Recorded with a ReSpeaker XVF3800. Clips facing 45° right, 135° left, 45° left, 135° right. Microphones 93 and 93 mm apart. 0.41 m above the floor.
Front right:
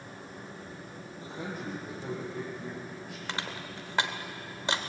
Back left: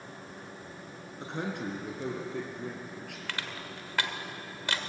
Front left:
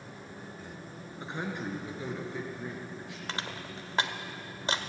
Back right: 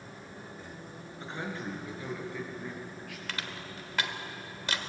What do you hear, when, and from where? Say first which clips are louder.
1.2 s a man speaking: back left 4 dB, front left 2 dB; 115° left, 4 m; by 3.2 s 110° left, 6.5 m
3.3 s crushing: front right 3 dB, front left 3 dB; 5° left, 1.5 m